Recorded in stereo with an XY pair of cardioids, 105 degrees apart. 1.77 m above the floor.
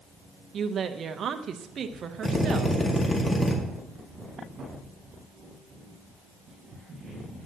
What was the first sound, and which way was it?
A woman speaking, 55° right.